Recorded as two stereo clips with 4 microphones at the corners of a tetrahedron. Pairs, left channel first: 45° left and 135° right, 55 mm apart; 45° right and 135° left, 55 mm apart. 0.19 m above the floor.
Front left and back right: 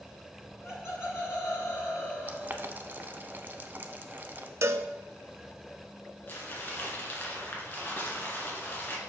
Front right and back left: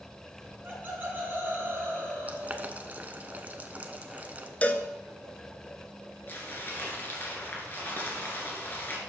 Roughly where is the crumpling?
Ahead.